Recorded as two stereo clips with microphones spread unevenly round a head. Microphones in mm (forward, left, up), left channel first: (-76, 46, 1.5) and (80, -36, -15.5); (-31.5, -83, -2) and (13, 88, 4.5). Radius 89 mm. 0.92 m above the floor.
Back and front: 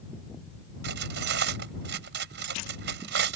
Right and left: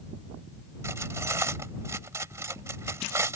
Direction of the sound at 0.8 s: Straight ahead.